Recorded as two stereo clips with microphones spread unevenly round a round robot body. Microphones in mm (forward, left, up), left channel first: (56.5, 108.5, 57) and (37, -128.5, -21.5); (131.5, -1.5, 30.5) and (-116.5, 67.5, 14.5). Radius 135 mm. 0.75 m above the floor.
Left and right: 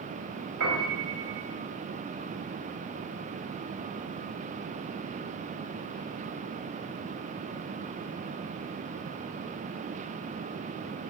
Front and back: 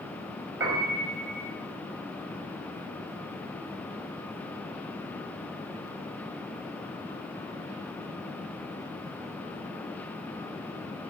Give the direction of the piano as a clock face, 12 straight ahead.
4 o'clock.